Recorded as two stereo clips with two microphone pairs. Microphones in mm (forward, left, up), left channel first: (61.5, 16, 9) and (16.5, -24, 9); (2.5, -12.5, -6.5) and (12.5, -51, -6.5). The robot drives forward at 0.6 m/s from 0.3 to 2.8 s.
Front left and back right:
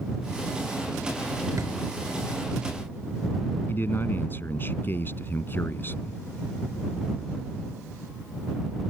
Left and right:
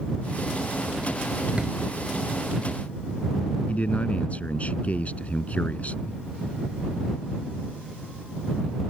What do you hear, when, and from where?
1.6 s a drawer: 130° right; by 1.8 s 135° right
3.7 s a man speaking: 75° left